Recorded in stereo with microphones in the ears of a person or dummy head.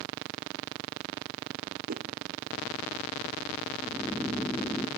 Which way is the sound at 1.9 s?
50° right (ahead or behind).